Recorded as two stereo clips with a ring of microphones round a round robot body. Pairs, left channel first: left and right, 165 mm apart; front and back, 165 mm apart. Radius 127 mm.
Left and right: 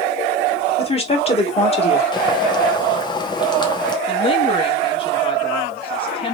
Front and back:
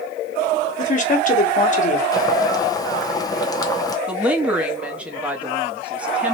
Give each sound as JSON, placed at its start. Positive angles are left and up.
{"t": 0.8, "sound": "a woman speaking", "azimuth_deg": 40, "distance_m": 1.8}
{"t": 2.1, "sound": "boiling", "azimuth_deg": 50, "distance_m": 0.9}
{"t": 4.1, "sound": "a woman speaking", "azimuth_deg": 105, "distance_m": 1.3}